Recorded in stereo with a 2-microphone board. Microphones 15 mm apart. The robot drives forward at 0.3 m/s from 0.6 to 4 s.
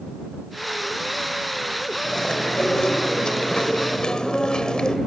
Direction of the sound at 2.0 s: 60° left (ahead or behind).